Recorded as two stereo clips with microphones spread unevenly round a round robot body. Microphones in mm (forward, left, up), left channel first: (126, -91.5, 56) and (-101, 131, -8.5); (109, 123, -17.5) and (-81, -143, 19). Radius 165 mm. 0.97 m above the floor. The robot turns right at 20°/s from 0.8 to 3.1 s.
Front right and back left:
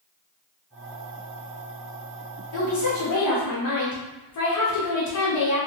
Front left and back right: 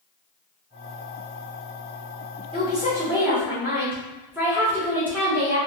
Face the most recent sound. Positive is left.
turn(degrees=-40)